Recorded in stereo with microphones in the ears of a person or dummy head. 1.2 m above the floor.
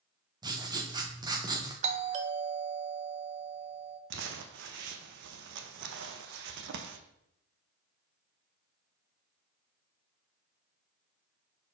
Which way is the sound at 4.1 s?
65° right (ahead or behind).